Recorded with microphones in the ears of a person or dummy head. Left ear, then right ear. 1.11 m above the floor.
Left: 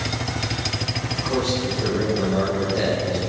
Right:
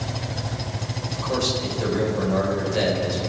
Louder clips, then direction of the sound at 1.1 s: Right 1 dB; 90° right.